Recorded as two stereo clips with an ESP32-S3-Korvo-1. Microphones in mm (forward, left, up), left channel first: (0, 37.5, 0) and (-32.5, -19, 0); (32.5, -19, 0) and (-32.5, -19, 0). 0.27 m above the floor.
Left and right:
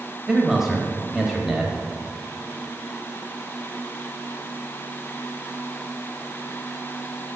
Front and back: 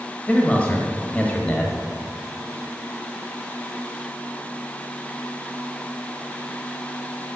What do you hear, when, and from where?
0.3 s a man speaking: 45° right, 1.2 m